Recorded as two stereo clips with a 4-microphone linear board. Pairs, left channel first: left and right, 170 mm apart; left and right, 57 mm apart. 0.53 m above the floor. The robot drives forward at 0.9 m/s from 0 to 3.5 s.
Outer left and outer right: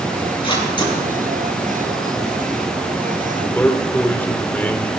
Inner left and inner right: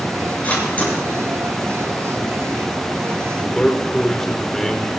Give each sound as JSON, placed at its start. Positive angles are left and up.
{"t": 0.4, "sound": "a camera shutter", "side_deg": 30, "distance_m": 6.0}
{"t": 3.3, "sound": "a man speaking", "side_deg": 10, "distance_m": 1.3}